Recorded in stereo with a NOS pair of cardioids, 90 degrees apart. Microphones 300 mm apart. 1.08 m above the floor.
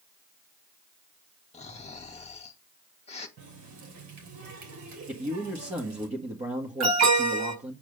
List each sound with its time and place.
1.5 s snoring: 20° left, 1.8 m
3.4 s a running tap: 65° right, 3 m
5.1 s a man speaking: 20° right, 1.7 m
6.8 s an alarm: 65° right, 7 m